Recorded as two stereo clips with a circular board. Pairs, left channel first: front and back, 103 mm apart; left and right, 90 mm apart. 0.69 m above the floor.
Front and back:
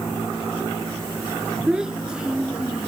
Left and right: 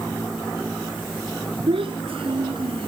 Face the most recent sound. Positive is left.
turn(degrees=-100)